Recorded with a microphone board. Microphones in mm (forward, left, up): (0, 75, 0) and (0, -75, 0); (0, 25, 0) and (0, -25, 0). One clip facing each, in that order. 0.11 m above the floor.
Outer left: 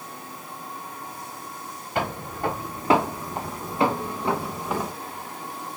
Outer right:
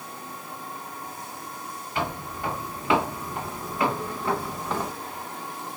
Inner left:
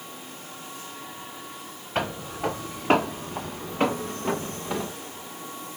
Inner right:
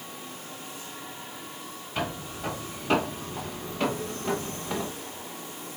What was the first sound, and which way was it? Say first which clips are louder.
Footsteps: outer left 3 dB, inner left 4 dB; 50° left (ahead or behind).